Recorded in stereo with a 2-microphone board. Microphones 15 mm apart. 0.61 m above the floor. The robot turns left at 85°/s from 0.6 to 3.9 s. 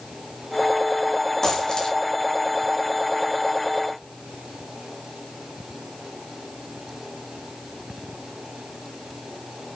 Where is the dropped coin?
150° left, 5 m; by 2.0 s 100° left, 5 m.